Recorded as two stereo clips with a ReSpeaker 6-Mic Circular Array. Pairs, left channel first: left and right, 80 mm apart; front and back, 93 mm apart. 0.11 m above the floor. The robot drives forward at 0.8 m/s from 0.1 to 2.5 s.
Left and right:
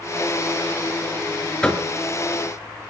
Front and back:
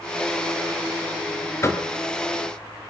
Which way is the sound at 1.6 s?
20° left.